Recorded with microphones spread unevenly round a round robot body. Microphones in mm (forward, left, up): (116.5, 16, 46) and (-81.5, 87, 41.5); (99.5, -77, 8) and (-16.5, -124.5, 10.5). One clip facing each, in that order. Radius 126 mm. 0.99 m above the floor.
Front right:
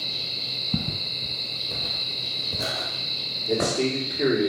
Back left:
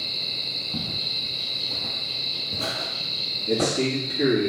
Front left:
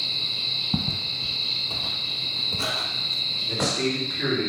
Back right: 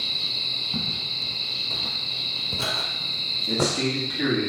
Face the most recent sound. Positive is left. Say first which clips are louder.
# back left 1 dB, back right 1 dB
turn(degrees=-165)